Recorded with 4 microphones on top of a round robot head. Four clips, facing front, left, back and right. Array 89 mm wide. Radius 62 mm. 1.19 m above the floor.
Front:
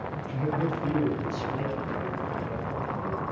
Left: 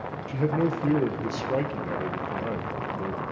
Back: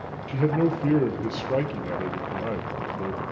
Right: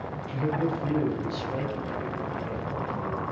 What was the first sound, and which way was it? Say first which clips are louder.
A man speaking: left 3 dB, back 6 dB; 150° left.